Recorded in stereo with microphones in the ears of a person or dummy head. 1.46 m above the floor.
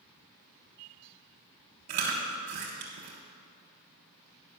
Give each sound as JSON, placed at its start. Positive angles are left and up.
{"t": 1.9, "sound": "chewing", "side_deg": -35, "distance_m": 1.3}